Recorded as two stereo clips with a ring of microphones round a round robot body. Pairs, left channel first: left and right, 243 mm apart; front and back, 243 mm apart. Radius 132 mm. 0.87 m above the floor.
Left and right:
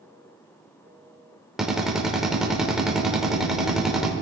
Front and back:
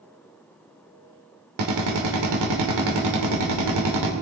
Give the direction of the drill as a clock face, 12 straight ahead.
6 o'clock.